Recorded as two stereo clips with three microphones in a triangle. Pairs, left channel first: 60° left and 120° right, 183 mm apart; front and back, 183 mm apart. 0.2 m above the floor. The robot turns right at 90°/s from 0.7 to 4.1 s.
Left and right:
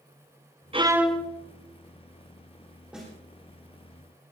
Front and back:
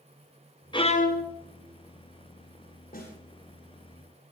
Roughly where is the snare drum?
Ahead right.